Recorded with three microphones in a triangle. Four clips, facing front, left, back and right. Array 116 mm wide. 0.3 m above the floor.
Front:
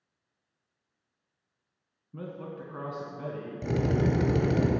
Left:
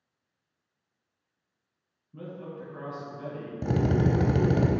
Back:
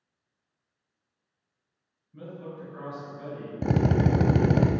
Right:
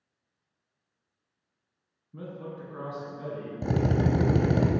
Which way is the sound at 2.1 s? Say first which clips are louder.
Even, front 1 dB; 10° right.